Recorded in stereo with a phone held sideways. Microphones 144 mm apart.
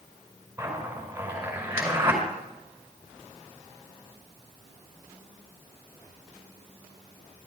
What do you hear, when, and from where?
0.6 s a zipper: 15° right (ahead or behind), 5 m